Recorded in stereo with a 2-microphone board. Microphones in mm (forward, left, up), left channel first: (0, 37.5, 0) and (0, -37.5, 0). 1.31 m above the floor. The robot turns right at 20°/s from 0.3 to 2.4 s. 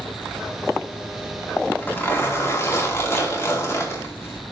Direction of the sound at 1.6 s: 20° left (ahead or behind).